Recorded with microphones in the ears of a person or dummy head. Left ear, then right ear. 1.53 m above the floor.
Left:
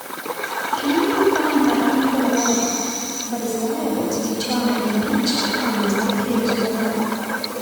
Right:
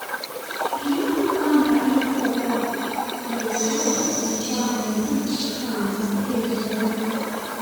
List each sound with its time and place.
0.7 s a woman speaking: 70° left (ahead or behind), 7.5 m